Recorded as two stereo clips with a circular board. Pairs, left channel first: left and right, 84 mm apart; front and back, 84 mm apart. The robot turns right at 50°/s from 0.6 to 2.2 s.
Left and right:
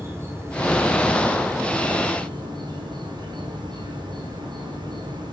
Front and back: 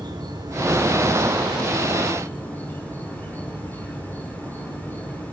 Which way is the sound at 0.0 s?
145° right.